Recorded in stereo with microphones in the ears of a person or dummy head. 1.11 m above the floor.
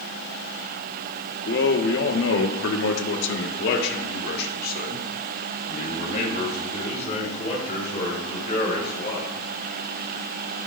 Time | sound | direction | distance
1.4 | a man speaking | 50° left (ahead or behind) | 1.1 m